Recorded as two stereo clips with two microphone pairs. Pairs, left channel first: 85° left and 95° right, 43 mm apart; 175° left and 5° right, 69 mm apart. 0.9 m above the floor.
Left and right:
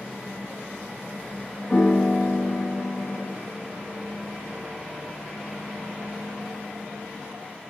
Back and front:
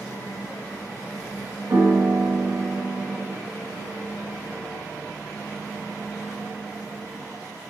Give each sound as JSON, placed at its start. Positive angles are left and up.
{"t": 1.7, "sound": "a piano", "azimuth_deg": 30, "distance_m": 0.9}